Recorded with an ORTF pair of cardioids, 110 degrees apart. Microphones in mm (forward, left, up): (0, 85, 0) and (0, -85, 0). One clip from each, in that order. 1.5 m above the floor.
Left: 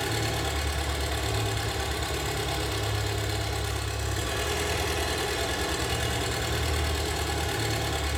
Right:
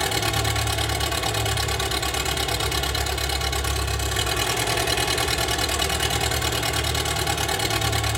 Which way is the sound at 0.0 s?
65° right.